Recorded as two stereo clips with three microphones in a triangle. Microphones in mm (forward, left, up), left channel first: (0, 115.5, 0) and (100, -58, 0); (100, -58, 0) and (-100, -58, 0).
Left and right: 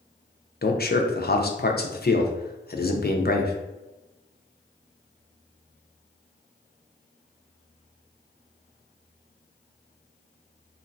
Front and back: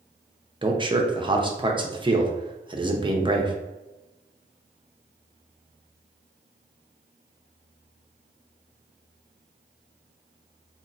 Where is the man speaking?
125° left, 0.6 m.